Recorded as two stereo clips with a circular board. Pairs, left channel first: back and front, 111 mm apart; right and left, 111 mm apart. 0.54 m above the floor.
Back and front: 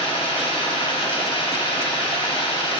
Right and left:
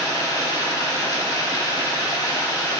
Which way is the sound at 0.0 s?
145° right.